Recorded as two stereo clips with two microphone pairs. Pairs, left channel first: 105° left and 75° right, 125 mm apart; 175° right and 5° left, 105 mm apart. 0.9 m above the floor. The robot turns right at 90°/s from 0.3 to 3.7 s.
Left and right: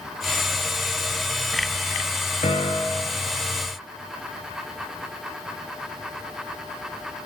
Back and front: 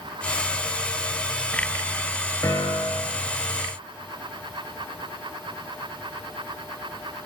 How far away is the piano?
About 2.5 m.